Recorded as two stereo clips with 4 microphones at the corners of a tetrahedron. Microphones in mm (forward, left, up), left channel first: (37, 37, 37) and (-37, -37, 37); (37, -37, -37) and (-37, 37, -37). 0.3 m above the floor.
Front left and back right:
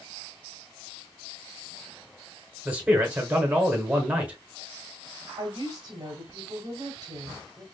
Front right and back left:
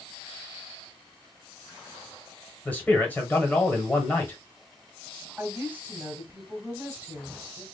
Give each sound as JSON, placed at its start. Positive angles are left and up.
{"t": 2.6, "sound": "a man speaking", "azimuth_deg": -85, "distance_m": 1.0}
{"t": 5.4, "sound": "a woman speaking", "azimuth_deg": -165, "distance_m": 1.4}